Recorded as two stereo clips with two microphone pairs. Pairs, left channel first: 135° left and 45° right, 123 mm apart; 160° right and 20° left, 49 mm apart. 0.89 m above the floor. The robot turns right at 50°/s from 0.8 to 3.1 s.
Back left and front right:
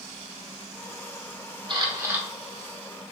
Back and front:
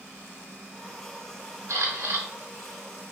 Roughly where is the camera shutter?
Ahead.